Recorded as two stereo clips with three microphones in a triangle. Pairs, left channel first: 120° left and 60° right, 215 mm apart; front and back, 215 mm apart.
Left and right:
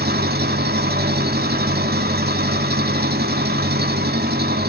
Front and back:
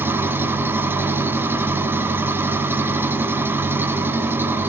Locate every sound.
0.0 s an engine running: 100° right, 1.2 m